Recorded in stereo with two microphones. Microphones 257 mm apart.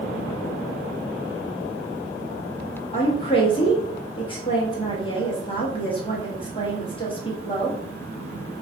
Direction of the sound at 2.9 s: 20° left (ahead or behind).